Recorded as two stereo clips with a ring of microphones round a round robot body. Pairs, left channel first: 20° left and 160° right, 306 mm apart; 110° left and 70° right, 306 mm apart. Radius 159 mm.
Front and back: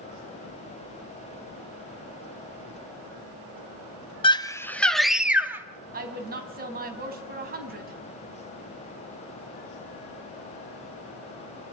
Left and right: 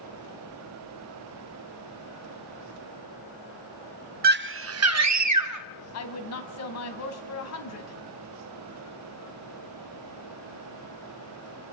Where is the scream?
40° right, 1.0 m; by 5.7 s 75° right, 1.8 m.